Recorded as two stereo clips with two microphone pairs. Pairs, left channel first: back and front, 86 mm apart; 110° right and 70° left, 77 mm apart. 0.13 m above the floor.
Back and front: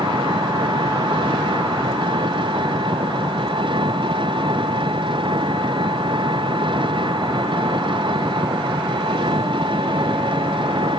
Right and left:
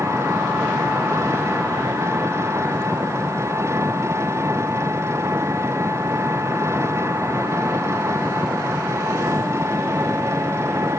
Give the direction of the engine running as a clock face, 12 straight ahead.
11 o'clock.